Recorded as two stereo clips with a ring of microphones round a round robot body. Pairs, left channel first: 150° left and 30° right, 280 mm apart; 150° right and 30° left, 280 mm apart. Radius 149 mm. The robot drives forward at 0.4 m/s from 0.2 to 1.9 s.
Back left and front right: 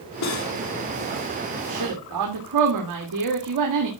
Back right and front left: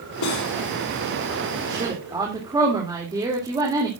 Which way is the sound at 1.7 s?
45° right.